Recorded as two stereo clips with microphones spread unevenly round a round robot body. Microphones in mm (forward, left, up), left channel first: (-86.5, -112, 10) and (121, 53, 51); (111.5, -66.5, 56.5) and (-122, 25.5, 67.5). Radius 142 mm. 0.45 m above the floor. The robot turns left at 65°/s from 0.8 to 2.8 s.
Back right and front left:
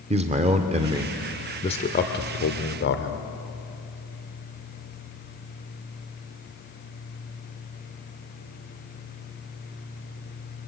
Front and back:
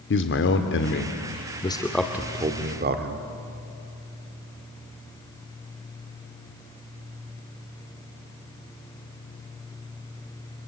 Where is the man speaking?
30° right, 1.4 m; by 3.2 s 160° right, 1.4 m.